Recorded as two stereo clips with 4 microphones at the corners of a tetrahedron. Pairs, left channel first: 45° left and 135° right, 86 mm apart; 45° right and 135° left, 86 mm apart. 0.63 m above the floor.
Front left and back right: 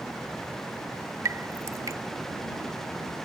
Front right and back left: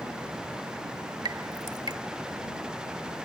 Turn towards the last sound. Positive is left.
turn(degrees=175)